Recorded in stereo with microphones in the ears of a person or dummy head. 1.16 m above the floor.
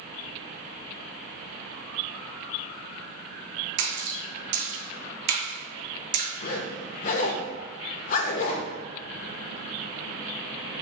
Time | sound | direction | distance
3.8 | a splash | 65° right (ahead or behind) | 0.8 m
6.4 | a zipper | 45° left (ahead or behind) | 0.5 m